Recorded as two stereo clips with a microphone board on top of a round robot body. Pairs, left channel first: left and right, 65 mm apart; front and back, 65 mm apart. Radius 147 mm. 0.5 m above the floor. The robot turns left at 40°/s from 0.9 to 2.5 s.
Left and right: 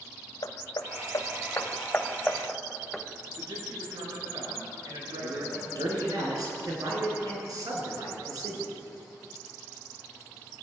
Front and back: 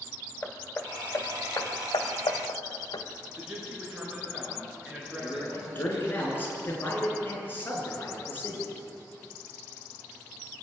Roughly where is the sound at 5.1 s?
Ahead right.